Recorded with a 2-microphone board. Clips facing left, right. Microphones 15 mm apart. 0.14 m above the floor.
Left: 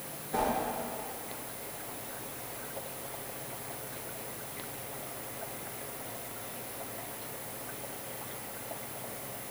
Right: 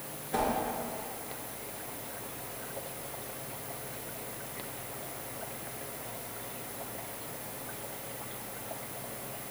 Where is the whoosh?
30° right (ahead or behind), 1.6 m.